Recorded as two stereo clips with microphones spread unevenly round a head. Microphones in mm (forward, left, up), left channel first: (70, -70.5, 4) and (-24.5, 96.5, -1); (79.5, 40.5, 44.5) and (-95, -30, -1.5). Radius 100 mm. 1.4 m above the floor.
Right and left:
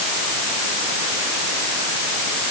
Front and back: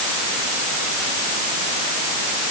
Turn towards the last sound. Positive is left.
No sound to turn to.